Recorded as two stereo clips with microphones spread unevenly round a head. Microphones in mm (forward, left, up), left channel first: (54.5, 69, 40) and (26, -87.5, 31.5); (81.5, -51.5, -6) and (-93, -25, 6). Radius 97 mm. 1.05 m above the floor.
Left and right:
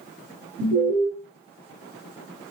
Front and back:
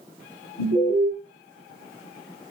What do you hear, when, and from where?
0.6 s an alarm: 65° right, 1.7 m